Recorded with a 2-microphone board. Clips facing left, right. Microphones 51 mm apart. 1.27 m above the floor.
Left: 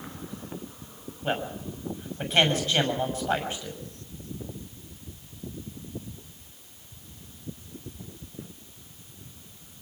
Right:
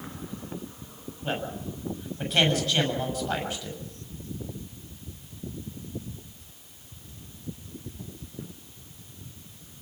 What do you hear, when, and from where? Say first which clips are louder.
1.2 s a man speaking: left 2 dB; 30° left (ahead or behind), 6.5 m